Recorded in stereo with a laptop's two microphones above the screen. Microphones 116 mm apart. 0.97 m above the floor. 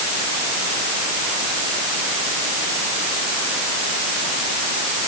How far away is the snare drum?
I don't hear a snare drum.